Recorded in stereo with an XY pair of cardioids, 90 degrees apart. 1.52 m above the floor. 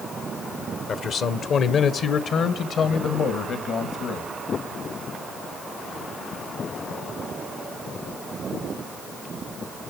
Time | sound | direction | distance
0.9 | a man speaking | 70° left | 1.1 m